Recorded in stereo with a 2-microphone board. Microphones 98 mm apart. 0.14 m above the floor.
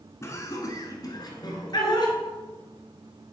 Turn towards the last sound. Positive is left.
turn(degrees=50)  # may be behind; listen again after turning